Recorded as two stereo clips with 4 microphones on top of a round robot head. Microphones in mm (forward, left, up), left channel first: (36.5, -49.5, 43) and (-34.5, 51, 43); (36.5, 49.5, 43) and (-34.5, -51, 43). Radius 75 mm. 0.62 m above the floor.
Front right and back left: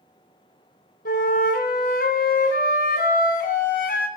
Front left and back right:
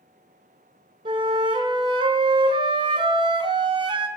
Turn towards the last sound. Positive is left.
turn(degrees=-75)